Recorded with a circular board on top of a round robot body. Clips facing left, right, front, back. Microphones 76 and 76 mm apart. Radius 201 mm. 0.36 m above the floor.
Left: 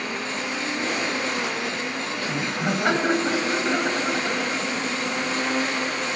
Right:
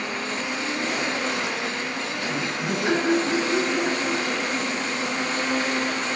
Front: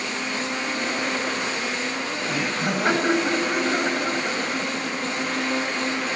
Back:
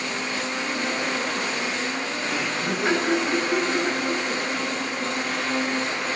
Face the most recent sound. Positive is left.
turn(degrees=40)